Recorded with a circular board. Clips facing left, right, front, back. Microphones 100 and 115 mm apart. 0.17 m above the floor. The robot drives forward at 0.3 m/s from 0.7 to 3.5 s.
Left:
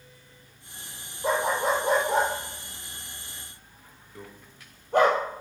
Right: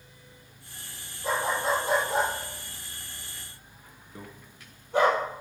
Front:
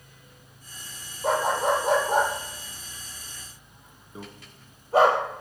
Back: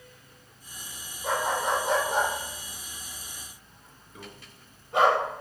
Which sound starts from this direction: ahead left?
A dog barking, at 1.2 s.